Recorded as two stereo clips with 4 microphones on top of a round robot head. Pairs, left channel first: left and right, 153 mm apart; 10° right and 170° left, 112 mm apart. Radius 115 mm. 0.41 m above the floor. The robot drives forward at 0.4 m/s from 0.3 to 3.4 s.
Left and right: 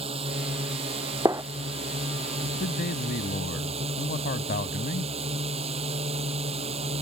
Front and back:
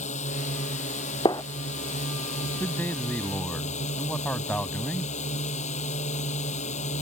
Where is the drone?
30° right; by 7.0 s 35° right.